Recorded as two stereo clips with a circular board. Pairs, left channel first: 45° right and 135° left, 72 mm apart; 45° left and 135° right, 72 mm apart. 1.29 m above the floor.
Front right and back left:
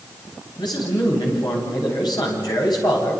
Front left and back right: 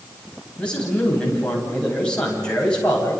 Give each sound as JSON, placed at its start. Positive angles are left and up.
{"t": 0.6, "sound": "a man speaking", "azimuth_deg": -30, "distance_m": 10.0}